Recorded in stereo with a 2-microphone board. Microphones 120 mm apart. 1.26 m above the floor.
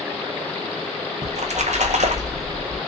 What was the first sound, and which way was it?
A splash, 75° right (ahead or behind).